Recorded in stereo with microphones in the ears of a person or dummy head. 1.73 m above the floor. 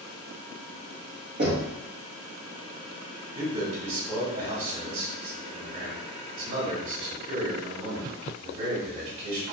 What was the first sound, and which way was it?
Knocking, 25° right (ahead or behind).